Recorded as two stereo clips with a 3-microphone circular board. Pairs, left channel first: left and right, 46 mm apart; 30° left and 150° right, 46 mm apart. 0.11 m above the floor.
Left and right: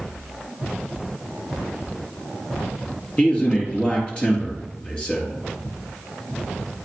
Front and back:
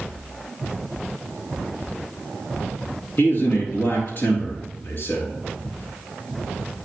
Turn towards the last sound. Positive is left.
turn(degrees=30)